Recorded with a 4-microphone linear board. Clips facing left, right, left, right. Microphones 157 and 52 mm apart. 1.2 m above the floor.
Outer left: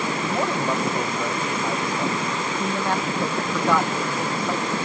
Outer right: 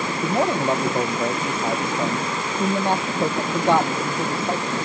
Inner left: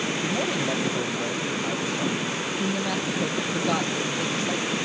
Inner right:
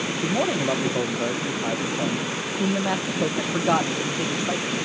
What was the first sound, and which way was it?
A man speaking, 25° right (ahead or behind).